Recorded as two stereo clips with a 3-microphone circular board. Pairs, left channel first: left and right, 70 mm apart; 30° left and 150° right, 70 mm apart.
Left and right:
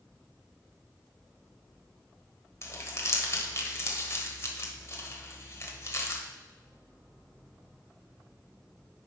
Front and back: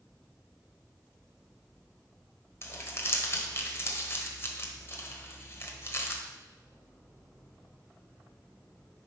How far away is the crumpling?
About 1.3 m.